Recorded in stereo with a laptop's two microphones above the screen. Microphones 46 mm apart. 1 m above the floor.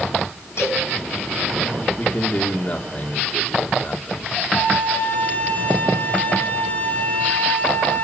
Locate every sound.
0.6 s a cowbell: 65° left (ahead or behind), 5 m
2.0 s a man speaking: 35° left (ahead or behind), 2.5 m
4.5 s a flute: 45° left (ahead or behind), 3 m